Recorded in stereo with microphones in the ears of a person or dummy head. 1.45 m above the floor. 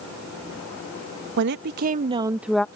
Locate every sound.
1.4 s a woman speaking: 75° right (ahead or behind); by 2.6 s 5° left (ahead or behind)